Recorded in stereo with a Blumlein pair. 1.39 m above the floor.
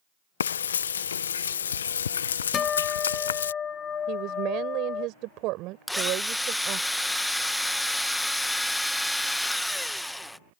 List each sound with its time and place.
0.4 s frying: 65° left
2.5 s a guitar: 20° left
4.1 s a woman speaking: 40° right
5.9 s a drill: 5° left